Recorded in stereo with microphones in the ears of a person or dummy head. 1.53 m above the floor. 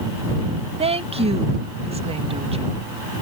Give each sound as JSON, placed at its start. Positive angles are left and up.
{"t": 0.8, "sound": "a woman speaking", "side_deg": -25}